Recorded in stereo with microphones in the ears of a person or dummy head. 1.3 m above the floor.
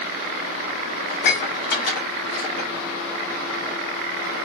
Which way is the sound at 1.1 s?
60° left (ahead or behind).